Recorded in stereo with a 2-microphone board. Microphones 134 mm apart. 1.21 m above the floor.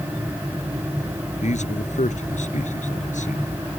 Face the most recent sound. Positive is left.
turn(degrees=65)  # may be behind; listen again after turning